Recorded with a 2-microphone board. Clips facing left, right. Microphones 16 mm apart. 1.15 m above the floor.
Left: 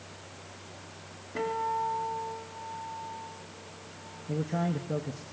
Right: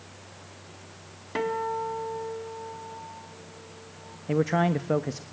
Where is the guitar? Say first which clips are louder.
Right 2 dB; 75° right (ahead or behind), 4 m.